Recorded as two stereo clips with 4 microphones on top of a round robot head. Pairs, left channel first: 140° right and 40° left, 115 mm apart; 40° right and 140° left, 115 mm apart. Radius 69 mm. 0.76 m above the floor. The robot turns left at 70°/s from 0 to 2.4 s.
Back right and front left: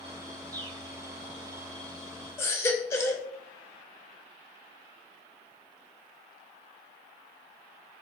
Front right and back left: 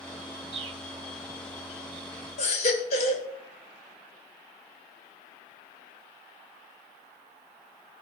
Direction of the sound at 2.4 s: 70° right.